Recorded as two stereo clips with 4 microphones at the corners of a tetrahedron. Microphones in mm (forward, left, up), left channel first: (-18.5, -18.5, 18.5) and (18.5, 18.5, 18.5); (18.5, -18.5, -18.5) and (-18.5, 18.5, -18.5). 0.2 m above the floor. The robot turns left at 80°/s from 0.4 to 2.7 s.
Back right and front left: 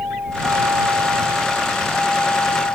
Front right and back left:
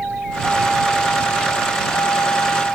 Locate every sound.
0.0 s a vehicle: 75° left; by 2.8 s 110° right